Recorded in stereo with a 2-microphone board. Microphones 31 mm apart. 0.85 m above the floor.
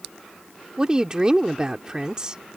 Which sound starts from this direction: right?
A woman speaking, at 0.8 s.